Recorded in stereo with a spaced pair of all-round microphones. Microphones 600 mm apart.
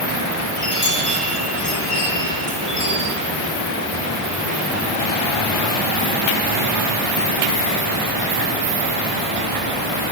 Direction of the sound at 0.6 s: 55° left (ahead or behind).